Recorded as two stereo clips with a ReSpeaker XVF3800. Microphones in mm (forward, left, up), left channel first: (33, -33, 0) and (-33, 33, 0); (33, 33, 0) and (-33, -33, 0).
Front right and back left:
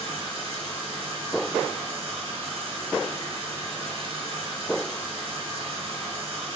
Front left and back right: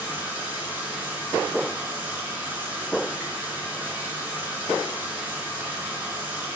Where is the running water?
155° left, 1.8 m.